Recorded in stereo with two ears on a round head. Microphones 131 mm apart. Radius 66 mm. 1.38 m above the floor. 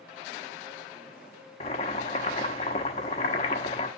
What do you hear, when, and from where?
1.6 s boiling: 40° left (ahead or behind), 1.1 m